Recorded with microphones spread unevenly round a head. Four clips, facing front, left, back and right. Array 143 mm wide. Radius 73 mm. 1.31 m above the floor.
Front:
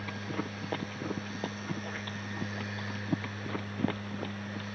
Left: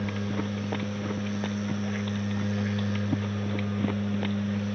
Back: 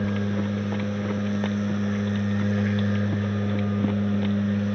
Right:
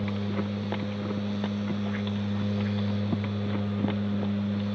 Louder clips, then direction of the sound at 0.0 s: Even, back 11 dB; 170° right.